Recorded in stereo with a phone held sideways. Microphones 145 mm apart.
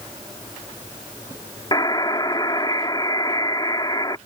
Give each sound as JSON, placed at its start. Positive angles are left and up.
{"t": 1.7, "sound": "a buzzer", "side_deg": 30}